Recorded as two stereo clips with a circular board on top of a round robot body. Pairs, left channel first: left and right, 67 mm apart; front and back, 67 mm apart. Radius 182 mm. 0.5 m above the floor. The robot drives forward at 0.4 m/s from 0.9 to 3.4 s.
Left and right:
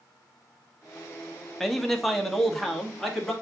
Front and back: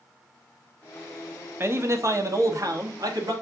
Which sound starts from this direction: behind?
A man speaking, at 1.6 s.